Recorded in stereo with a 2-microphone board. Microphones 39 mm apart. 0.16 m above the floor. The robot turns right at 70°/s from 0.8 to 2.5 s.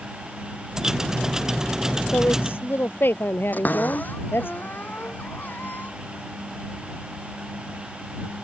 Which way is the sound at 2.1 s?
55° left (ahead or behind).